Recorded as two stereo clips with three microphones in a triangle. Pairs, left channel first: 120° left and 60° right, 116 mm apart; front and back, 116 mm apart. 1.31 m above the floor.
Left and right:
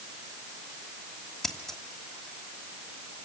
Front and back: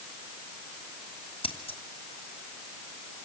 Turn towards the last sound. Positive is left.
turn(degrees=35)